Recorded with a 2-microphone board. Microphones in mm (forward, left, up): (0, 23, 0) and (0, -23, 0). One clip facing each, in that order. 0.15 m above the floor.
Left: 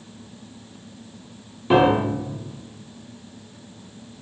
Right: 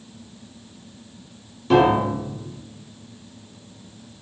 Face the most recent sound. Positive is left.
turn(degrees=20)  # may be behind; listen again after turning